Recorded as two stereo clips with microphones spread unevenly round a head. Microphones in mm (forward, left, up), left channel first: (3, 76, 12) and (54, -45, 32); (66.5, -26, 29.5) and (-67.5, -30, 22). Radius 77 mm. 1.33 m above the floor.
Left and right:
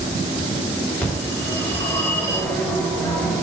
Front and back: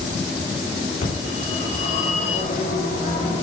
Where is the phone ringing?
30° left, 5 m.